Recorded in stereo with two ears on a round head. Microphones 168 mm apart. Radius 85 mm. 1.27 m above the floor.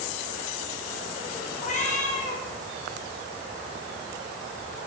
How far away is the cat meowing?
About 10 m.